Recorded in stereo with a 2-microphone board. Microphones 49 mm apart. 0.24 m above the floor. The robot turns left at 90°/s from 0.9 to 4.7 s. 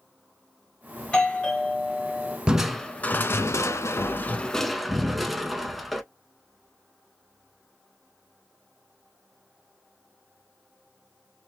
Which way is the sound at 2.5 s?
160° right.